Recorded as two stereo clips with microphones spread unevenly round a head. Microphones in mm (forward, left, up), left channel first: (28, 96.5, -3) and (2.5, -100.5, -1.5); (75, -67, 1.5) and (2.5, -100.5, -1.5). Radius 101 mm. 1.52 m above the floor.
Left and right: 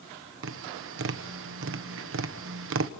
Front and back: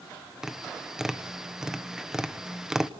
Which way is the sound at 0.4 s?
70° right.